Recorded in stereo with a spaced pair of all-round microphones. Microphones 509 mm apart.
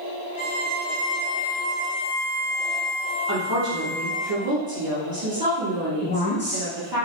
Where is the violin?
30° left (ahead or behind), 0.9 m.